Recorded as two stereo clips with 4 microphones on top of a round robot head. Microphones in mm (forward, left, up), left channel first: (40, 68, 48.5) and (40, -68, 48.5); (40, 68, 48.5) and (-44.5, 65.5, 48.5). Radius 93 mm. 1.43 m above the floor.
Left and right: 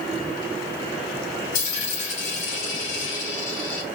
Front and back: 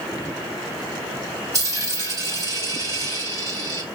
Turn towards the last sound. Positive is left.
turn(degrees=135)